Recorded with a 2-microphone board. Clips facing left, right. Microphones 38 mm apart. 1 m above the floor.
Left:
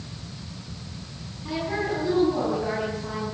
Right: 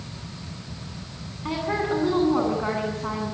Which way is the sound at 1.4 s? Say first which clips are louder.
Right 2 dB; 45° right (ahead or behind).